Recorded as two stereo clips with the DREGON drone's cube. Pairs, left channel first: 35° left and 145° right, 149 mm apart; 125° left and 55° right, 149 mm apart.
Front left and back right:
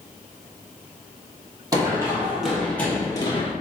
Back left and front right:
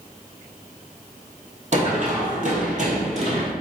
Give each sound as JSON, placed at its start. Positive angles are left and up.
{"t": 1.7, "sound": "running footsteps", "azimuth_deg": -85, "distance_m": 1.6}